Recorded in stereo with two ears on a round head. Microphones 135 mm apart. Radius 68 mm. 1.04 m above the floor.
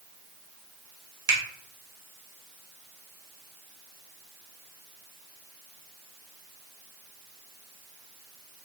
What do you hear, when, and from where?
1.3 s a finger snap: 30° right (ahead or behind), 1.5 m